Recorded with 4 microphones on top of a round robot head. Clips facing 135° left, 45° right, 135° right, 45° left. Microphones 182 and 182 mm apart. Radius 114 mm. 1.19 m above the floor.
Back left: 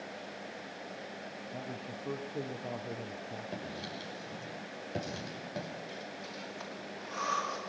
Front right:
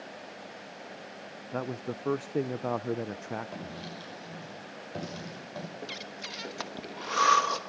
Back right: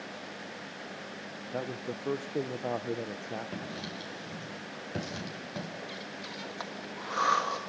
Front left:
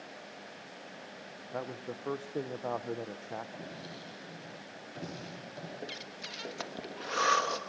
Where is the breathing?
20° right, 1.3 m.